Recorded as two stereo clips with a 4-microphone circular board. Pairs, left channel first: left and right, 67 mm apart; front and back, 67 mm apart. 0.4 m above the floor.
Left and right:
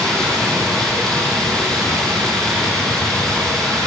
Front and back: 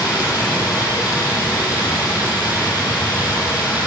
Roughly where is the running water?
Ahead.